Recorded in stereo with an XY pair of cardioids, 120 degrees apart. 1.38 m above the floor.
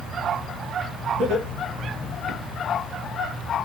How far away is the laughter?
About 2.5 m.